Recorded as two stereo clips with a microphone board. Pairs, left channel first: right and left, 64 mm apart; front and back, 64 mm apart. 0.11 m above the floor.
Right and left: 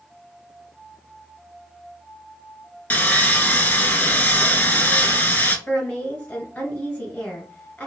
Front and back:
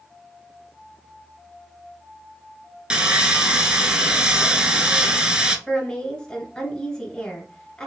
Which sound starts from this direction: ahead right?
A woman speaking, at 5.7 s.